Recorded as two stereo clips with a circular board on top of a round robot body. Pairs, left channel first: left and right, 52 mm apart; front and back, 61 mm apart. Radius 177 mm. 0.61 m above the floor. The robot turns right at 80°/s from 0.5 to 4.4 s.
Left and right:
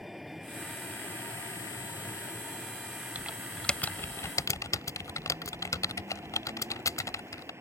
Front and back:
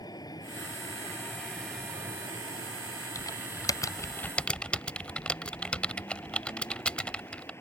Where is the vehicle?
5° right; by 7.6 s 50° right.